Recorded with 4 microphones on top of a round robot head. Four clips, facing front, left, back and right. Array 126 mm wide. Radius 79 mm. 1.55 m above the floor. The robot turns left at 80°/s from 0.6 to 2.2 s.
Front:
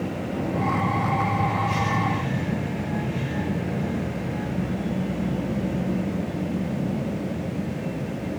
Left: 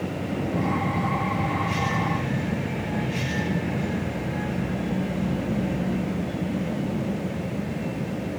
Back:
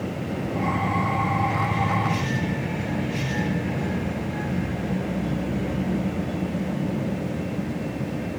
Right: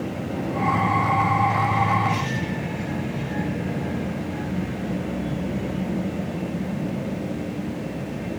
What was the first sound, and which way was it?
Only background noise.